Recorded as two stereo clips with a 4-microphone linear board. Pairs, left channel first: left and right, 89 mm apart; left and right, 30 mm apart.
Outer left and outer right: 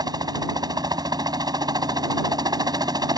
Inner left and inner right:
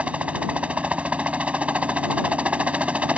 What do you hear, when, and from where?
0.0 s a helicopter: 55° right (ahead or behind)